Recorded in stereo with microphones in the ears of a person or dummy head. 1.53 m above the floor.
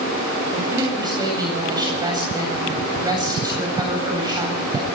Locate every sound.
0.5 s a woman speaking: 20° right (ahead or behind), 8 m